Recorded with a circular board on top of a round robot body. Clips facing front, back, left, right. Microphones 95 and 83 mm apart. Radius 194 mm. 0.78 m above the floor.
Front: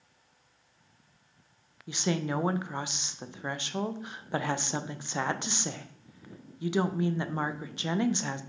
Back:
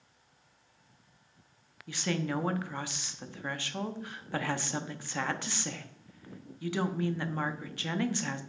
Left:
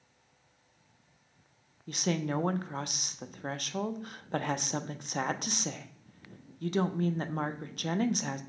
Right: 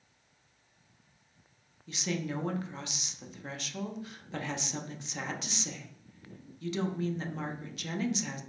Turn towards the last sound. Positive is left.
turn(degrees=65)